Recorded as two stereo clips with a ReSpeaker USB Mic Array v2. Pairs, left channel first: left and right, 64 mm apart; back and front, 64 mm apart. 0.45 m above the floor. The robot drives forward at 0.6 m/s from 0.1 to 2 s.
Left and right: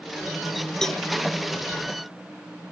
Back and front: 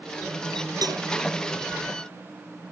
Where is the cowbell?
5° left.